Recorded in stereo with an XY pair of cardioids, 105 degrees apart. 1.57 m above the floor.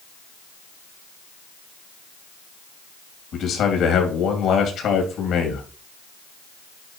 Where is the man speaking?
70° left, 3.5 m.